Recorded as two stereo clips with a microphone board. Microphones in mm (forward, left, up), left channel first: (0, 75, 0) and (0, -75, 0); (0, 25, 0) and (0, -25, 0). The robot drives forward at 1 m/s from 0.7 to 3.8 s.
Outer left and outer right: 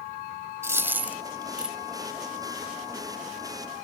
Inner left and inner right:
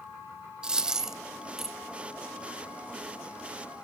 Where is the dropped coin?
15° right (ahead or behind), 0.6 m; by 1.8 s 5° right (ahead or behind), 1.6 m.